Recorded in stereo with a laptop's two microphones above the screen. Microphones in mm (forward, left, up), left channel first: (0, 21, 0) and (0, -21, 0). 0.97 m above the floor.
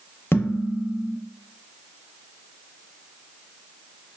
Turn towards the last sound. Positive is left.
turn(degrees=70)  # may be behind; listen again after turning